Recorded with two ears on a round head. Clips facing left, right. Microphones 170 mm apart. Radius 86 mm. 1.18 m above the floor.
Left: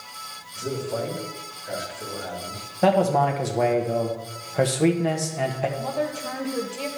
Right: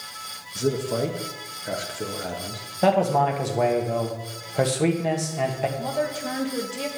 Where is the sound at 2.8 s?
Centre (ahead or behind), 1.3 m.